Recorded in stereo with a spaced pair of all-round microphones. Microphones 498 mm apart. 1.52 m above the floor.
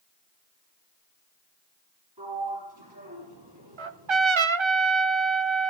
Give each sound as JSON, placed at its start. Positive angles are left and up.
{"t": 2.2, "sound": "a sliding door", "side_deg": -55, "distance_m": 7.0}
{"t": 3.8, "sound": "a trumpet", "side_deg": -65, "distance_m": 0.7}